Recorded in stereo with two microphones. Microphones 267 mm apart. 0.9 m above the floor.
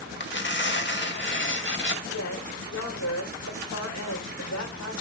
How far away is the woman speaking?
About 3 m.